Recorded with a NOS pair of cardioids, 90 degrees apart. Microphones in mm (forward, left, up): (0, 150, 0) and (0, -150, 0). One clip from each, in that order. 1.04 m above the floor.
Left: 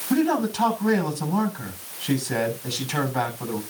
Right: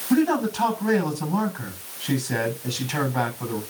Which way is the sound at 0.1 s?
5° left.